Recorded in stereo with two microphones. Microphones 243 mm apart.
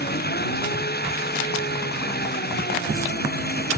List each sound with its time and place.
0.0 s an engine running: 45° left (ahead or behind)